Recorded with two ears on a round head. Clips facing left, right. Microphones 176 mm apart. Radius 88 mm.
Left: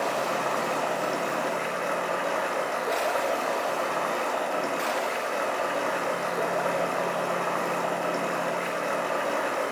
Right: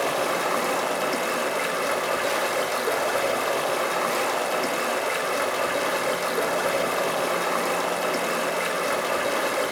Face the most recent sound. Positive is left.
turn(degrees=-50)  # may be behind; listen again after turning